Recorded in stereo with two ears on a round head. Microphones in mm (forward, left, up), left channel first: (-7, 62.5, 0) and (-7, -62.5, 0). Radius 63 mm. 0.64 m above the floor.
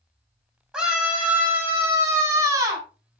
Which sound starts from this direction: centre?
A scream, at 0.7 s.